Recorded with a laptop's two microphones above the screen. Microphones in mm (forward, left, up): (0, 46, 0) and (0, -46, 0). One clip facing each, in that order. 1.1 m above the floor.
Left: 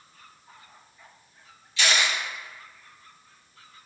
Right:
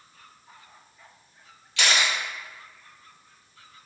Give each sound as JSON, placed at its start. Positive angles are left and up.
{"t": 1.8, "sound": "a camera shutter", "side_deg": -70, "distance_m": 0.9}